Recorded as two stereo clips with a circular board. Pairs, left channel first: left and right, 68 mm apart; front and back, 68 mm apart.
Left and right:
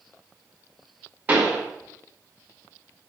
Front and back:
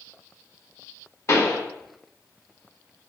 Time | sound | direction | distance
1.3 | a pop | 30° right | 1.0 m